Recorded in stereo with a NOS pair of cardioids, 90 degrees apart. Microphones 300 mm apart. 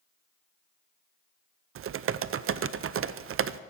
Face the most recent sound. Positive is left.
turn(degrees=-50)